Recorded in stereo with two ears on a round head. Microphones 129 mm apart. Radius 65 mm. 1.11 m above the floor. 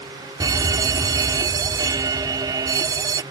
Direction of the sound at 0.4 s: 25° right (ahead or behind).